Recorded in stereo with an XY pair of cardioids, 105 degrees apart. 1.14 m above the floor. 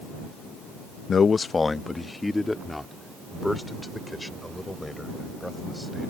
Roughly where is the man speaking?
Ahead left.